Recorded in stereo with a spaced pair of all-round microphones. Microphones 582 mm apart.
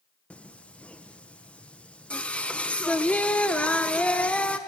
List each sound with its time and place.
0.3 s singing: centre (ahead or behind), 0.9 m